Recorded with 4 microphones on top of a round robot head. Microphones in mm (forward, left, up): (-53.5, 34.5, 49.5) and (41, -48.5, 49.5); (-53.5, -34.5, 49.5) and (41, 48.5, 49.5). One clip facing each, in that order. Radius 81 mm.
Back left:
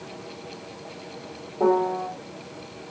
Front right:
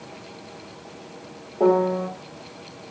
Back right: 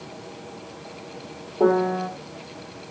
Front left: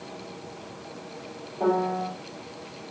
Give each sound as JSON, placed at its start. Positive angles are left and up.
{"t": 1.6, "sound": "a piano", "azimuth_deg": -105, "distance_m": 1.3}